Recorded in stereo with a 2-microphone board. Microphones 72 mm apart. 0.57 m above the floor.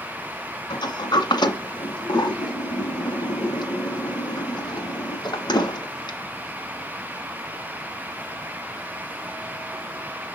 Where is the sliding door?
85° left, 1.9 m.